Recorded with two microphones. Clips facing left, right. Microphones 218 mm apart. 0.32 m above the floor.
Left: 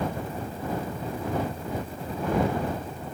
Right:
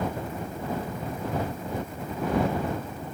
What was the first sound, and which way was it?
Only background noise.